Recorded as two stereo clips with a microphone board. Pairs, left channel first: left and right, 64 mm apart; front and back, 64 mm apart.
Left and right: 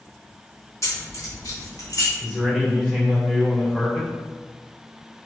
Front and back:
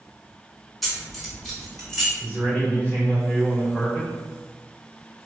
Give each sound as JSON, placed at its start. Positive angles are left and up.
{"t": 0.8, "sound": "keys jangling", "azimuth_deg": 95, "distance_m": 0.8}
{"t": 2.2, "sound": "a man speaking", "azimuth_deg": 10, "distance_m": 1.2}